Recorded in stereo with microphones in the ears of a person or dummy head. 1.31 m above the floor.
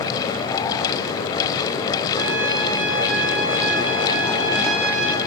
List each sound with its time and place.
2.2 s a trumpet: 75° right (ahead or behind), 1.3 m